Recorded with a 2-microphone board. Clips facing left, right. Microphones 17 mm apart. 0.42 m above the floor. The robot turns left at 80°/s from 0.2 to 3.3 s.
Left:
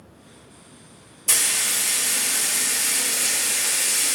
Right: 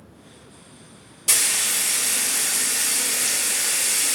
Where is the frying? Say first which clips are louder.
Right 1 dB; 140° right, 1.8 m; by 4.2 s 60° left, 1.8 m.